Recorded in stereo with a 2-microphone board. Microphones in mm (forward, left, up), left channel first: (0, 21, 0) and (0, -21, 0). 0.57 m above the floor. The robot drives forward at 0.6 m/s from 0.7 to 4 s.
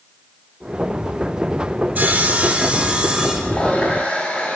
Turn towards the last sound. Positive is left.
turn(degrees=25)  # may be behind; listen again after turning